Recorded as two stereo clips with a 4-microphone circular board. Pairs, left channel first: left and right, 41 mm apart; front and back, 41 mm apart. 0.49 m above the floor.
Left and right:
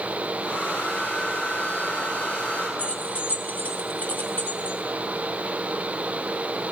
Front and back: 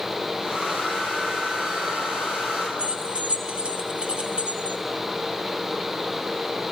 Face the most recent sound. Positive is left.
turn(degrees=125)